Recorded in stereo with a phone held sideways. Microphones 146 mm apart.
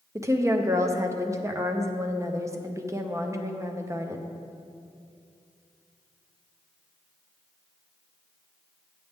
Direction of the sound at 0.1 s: 20° right (ahead or behind).